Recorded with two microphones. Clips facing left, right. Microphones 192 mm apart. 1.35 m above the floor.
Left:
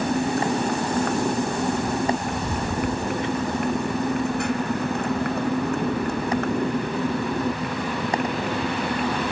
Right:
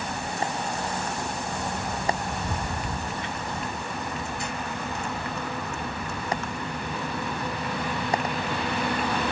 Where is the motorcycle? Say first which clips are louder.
Left 9 dB; 65° left (ahead or behind); by 9.3 s 55° left (ahead or behind).